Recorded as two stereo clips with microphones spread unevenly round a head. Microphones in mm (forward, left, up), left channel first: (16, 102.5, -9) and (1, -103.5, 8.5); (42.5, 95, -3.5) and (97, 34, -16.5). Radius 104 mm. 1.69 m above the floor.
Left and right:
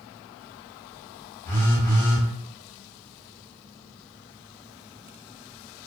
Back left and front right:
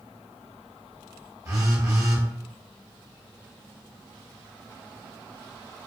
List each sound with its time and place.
1.4 s a phone buzzing: 5° left, 1.1 m